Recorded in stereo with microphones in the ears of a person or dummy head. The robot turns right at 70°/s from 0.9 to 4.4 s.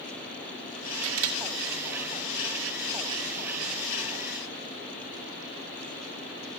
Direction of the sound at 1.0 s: 65° right (ahead or behind).